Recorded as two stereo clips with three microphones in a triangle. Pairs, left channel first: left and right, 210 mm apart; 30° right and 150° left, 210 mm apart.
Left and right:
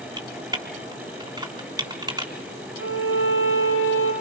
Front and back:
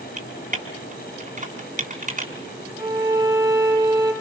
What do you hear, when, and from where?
0.2 s typing on a keyboard: 160° right, 3.5 m
2.8 s a violin: 80° left, 8 m